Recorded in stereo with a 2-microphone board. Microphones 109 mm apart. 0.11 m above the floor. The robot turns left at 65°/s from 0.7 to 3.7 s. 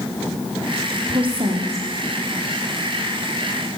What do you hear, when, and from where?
1.1 s a woman speaking: 45° right, 4.5 m; by 1.9 s 95° right, 4.5 m